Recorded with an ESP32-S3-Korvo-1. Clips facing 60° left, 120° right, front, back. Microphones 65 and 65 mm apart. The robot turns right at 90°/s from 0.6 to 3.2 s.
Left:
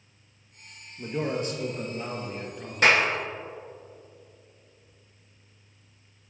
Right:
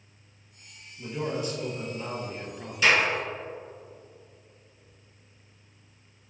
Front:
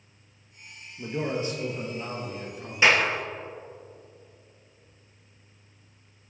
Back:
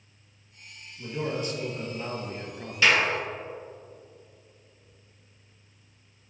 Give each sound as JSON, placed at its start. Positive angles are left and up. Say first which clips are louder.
{"t": 1.0, "sound": "a man speaking", "louder": "left 2 dB, front 2 dB", "azimuth_deg": 10, "distance_m": 2.0}
{"t": 2.8, "sound": "a clap", "louder": "left 2 dB, front 1 dB", "azimuth_deg": 60, "distance_m": 2.5}